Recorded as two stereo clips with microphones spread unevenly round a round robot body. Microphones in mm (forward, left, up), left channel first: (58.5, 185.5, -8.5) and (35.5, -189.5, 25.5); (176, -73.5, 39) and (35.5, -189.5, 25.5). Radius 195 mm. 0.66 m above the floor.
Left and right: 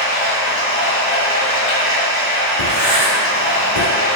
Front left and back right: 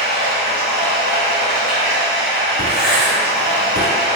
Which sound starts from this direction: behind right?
Writing, at 2.6 s.